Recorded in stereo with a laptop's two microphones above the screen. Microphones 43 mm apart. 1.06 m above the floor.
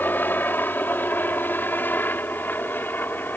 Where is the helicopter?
50° left (ahead or behind).